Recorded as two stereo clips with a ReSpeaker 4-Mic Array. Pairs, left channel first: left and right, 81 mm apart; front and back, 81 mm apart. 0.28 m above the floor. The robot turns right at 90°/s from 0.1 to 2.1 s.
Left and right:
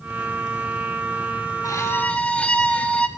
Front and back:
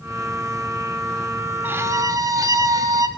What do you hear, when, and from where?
1.6 s a violin: 120° left, 0.5 m; by 3.1 s 160° left, 0.5 m